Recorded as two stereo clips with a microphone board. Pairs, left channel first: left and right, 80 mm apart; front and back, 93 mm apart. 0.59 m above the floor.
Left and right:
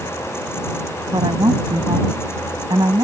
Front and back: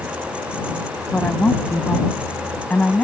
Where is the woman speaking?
70° right.